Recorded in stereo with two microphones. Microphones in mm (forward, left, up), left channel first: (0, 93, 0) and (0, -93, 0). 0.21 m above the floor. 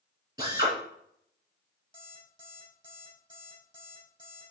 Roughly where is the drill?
Centre.